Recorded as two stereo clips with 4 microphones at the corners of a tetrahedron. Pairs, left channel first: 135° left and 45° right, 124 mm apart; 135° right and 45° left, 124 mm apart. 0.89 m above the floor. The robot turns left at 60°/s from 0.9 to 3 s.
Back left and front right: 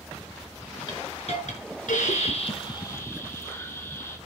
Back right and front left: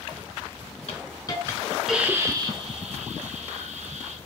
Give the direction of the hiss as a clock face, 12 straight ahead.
6 o'clock.